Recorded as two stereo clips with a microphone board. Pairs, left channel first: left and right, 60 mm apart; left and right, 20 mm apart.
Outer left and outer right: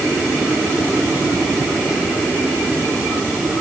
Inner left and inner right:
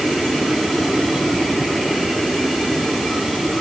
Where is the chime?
No chime in this recording.